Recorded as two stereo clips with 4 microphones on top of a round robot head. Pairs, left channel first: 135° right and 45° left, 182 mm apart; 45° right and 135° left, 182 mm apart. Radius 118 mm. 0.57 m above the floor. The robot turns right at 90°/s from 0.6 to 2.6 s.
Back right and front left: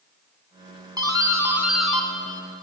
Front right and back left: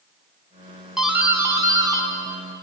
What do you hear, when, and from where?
1.0 s a doorbell: 50° left, 1.1 m; by 2.1 s 155° left, 1.1 m